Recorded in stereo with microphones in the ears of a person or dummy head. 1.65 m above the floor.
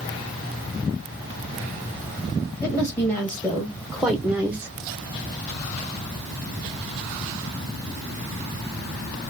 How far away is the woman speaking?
About 1.8 m.